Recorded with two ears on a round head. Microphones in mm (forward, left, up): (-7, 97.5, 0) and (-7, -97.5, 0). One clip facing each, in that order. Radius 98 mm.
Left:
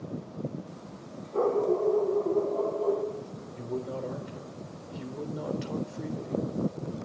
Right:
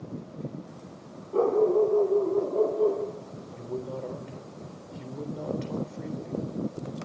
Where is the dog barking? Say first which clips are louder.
Right 4 dB; 55° right (ahead or behind), 9 m; by 3.0 s 60° right (ahead or behind), 8 m.